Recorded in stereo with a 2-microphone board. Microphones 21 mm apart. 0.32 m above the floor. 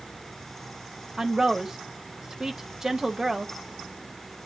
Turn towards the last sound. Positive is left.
turn(degrees=-30)  # may be behind; listen again after turning